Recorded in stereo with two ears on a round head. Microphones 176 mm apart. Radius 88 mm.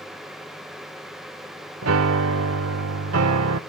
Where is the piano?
80° right, 0.9 m.